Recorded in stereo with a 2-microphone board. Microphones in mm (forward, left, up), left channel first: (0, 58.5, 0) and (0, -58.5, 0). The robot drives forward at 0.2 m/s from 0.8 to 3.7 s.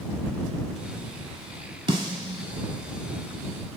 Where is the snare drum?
40° right (ahead or behind), 0.7 m; by 2.4 s 45° right (ahead or behind), 0.7 m.